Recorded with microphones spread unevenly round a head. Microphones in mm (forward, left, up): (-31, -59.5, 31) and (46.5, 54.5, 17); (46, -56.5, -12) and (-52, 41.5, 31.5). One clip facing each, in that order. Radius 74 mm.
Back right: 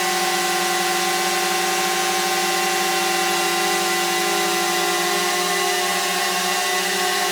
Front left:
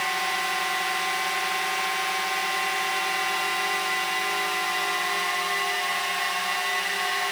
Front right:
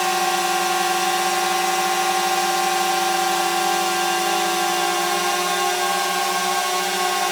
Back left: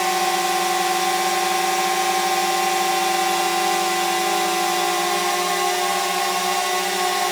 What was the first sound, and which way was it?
A drone, 140° right.